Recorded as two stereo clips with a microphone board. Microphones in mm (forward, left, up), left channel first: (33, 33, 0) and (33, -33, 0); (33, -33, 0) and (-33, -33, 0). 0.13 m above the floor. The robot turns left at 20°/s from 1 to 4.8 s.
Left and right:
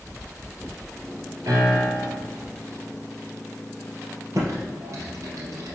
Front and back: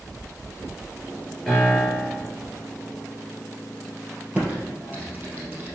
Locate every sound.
1.5 s a piano: 80° right, 3 m; by 2.2 s 95° right, 3 m
4.3 s typing on a keyboard: 105° right, 2.5 m; by 5.8 s 115° right, 2.5 m